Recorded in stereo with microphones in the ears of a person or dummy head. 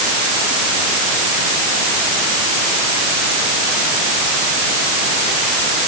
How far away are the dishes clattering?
I don't hear dishes clattering.